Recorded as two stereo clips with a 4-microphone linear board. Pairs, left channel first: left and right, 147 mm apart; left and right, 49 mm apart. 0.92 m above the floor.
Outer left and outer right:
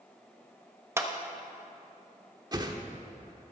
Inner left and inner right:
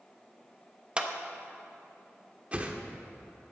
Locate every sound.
1.0 s a clap: 20° right (ahead or behind), 0.9 m
2.5 s a whoosh: 30° right (ahead or behind), 1.0 m